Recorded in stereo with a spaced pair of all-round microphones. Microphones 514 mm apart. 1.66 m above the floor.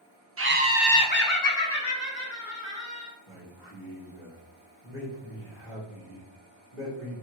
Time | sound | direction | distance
0.4 | laughter | 30° right (ahead or behind) | 0.6 m
3.3 | a man speaking | 25° left (ahead or behind) | 2 m